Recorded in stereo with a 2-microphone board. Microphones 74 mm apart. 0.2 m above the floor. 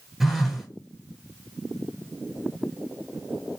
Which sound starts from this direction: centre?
A phone buzzing, at 0.2 s.